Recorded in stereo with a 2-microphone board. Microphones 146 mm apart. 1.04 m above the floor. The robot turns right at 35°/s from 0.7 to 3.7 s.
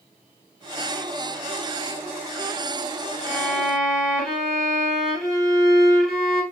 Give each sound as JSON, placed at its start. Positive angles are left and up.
{"t": 3.2, "sound": "a violin", "side_deg": 15, "distance_m": 3.5}